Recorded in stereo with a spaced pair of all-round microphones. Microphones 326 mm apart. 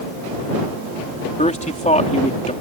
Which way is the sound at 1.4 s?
20° left (ahead or behind).